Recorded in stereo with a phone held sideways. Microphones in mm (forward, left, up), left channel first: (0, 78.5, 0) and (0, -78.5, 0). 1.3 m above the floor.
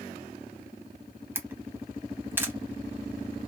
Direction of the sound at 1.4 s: 15° right (ahead or behind).